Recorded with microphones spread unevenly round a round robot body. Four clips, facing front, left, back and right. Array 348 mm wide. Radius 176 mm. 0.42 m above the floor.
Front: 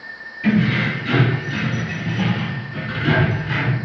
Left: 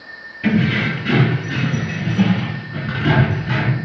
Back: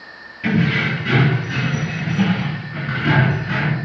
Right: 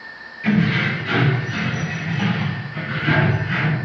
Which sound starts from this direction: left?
Keys jangling, at 0.4 s.